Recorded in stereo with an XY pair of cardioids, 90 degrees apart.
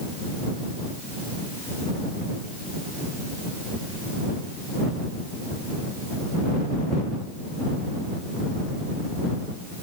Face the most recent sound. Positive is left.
No sound to turn to.